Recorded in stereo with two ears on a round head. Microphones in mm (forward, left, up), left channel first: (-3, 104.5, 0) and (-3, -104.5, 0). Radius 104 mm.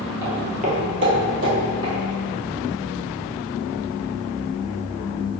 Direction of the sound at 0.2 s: 10° right (ahead or behind).